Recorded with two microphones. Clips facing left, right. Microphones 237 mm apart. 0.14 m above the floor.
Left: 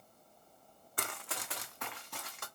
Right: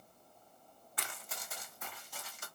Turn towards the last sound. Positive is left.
turn(degrees=60)  # may be behind; listen again after turning